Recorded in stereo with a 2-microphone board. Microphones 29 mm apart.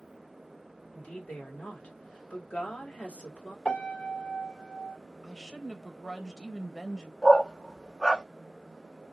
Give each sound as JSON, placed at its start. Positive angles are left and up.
{"t": 0.9, "sound": "a woman speaking", "side_deg": 60, "distance_m": 2.5}
{"t": 3.6, "sound": "a piano", "side_deg": 45, "distance_m": 1.6}
{"t": 5.2, "sound": "a woman speaking", "side_deg": 15, "distance_m": 1.3}
{"t": 7.2, "sound": "a dog barking", "side_deg": 20, "distance_m": 0.6}